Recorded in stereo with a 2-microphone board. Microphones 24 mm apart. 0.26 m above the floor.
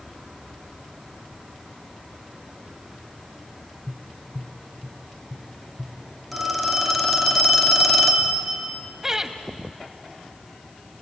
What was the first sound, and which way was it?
Tapping, 45° left (ahead or behind).